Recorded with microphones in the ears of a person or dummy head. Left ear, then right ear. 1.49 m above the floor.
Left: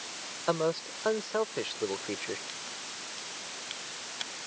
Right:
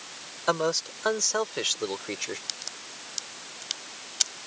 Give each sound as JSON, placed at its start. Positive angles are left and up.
{"t": 0.5, "sound": "a man speaking", "side_deg": -65}
{"t": 2.5, "sound": "a crack", "side_deg": -85}